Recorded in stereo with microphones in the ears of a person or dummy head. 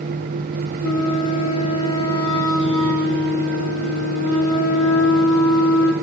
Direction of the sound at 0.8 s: 80° left.